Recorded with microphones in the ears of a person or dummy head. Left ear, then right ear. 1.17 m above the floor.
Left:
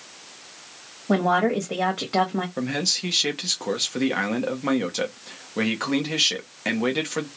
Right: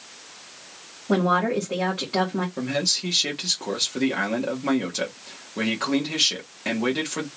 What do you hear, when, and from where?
1.1 s a woman speaking: 45° left (ahead or behind), 1.4 m
2.6 s a man speaking: 35° left (ahead or behind), 1.1 m